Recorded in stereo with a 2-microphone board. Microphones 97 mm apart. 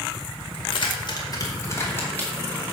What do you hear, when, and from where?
0.5 s keys jangling: 65° left (ahead or behind), 2.0 m; by 2.6 s 15° left (ahead or behind), 3.5 m